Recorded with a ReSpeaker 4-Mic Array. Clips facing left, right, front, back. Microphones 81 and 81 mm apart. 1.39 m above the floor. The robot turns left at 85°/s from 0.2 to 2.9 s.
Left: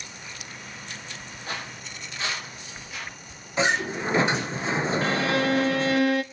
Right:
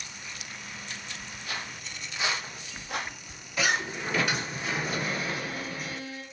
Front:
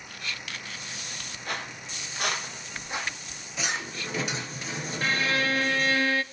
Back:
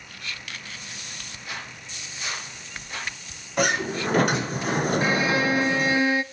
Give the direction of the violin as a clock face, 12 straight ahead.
8 o'clock.